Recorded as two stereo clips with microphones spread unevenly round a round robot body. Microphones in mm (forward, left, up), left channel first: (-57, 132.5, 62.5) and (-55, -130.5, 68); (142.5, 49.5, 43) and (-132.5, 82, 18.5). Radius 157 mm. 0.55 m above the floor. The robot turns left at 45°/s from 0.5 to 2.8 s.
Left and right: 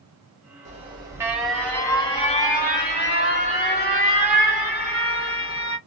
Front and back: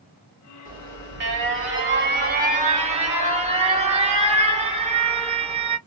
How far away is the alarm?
About 2.5 m.